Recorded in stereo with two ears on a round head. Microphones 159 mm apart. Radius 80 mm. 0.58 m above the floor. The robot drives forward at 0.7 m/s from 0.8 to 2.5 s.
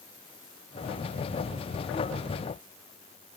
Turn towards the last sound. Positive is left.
No sound to turn to.